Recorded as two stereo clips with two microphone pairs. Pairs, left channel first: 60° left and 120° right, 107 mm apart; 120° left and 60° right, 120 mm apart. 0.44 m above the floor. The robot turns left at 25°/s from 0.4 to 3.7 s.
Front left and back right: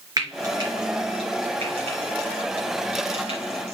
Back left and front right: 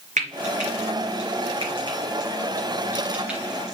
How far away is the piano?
I don't hear a piano.